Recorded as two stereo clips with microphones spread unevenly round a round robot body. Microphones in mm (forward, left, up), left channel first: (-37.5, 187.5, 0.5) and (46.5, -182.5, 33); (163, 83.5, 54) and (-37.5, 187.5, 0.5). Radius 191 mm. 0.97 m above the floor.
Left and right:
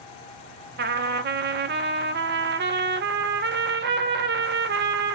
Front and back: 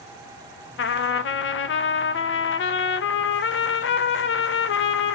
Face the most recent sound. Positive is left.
turn(degrees=-25)